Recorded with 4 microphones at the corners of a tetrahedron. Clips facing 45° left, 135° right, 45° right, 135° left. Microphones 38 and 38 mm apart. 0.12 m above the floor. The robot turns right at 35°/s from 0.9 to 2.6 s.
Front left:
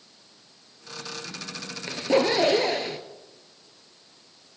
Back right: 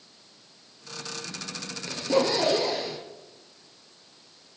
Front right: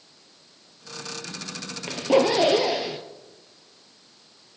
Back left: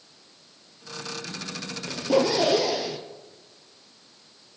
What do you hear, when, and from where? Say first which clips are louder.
1.9 s a zipper: front left 2 dB, front right 3 dB; 10° right, 1.3 m; by 3.0 s 20° left, 1.3 m